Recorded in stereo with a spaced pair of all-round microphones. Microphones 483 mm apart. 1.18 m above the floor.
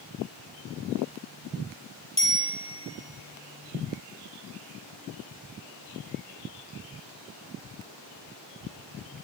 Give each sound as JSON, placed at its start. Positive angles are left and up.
{"t": 2.2, "sound": "a bicycle bell", "side_deg": 30, "distance_m": 3.0}